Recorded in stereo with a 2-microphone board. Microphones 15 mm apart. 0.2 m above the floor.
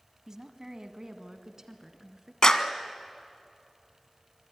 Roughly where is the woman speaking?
Right.